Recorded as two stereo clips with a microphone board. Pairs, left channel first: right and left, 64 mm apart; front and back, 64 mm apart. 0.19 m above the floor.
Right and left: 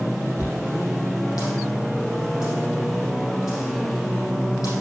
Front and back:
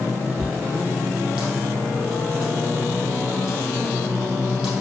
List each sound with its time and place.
0.4 s a dropped coin: 100° right, 3.5 m